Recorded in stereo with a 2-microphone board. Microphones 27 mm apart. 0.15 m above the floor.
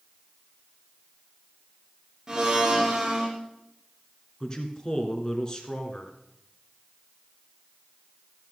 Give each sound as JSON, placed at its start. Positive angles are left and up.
{"t": 2.3, "sound": "a blender", "side_deg": -20, "distance_m": 3.0}
{"t": 4.4, "sound": "a man speaking", "side_deg": 25, "distance_m": 1.8}